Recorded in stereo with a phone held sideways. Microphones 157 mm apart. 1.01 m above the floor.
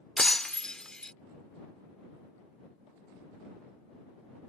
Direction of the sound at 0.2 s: 5° left (ahead or behind).